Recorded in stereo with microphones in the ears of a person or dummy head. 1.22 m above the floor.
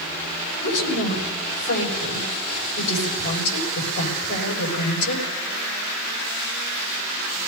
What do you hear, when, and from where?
0.6 s a woman speaking: 70° left (ahead or behind), 6.5 m